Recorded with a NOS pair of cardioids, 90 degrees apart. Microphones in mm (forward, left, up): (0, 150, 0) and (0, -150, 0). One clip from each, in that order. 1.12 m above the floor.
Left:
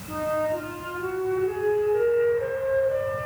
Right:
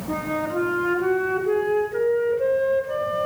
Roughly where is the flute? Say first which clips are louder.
Left 1 dB; ahead right.